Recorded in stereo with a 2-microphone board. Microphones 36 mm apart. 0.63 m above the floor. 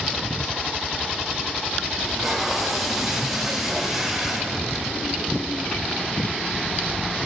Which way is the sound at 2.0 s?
5° right (ahead or behind).